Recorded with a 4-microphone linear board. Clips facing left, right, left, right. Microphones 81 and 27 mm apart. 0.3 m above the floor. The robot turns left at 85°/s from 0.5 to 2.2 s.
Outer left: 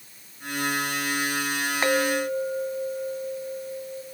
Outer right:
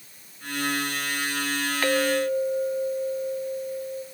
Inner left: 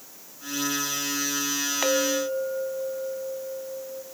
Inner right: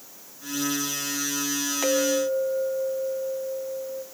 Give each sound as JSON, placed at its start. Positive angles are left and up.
{"t": 1.8, "sound": "a clink", "azimuth_deg": 150, "distance_m": 1.6}